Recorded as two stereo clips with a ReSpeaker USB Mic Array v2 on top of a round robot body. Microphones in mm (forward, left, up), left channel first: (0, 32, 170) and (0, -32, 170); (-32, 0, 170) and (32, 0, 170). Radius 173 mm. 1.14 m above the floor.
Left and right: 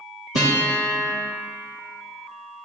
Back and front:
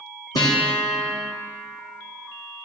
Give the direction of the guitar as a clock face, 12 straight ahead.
5 o'clock.